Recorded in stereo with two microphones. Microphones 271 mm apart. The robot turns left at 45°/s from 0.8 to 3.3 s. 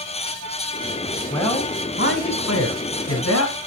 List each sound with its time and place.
1.3 s a man speaking: 160° left, 3 m; by 3.5 s 70° left, 3 m